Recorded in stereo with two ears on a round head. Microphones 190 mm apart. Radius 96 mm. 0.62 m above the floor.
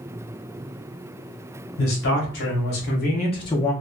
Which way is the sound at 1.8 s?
60° left (ahead or behind).